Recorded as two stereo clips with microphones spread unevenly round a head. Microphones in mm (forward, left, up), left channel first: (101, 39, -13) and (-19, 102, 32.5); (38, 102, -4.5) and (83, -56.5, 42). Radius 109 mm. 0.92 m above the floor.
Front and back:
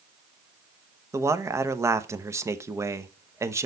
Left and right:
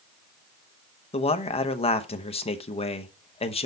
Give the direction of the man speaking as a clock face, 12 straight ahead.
10 o'clock.